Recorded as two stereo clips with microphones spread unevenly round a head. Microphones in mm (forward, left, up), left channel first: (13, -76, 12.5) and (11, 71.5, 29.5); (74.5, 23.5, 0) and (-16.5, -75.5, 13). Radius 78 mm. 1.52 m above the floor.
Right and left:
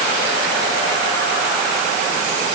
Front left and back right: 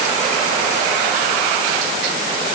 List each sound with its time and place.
Only background noise.